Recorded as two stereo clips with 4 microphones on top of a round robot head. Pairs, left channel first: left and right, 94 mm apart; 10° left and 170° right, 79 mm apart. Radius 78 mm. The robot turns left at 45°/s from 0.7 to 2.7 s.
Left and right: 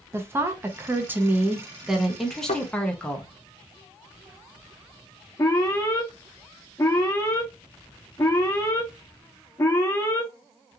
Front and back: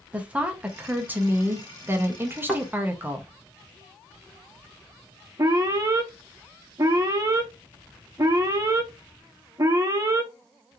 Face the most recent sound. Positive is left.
turn(degrees=150)